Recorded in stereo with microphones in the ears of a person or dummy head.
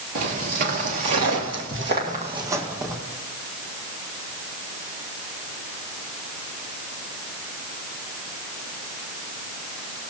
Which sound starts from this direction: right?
Footsteps, at 0.1 s.